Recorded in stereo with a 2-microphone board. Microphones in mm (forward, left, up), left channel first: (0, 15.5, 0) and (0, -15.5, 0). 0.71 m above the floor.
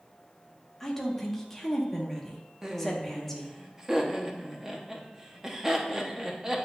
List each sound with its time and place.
0.8 s a woman speaking: 10° left (ahead or behind), 0.9 m
2.6 s laughter: 15° right (ahead or behind), 0.7 m